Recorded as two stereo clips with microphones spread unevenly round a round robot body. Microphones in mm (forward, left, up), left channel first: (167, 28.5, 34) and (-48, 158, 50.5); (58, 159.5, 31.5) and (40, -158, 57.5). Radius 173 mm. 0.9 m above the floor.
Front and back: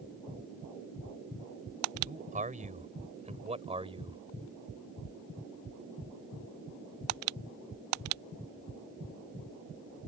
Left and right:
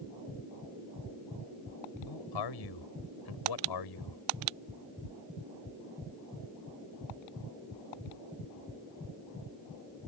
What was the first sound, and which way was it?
A man speaking, 90° left.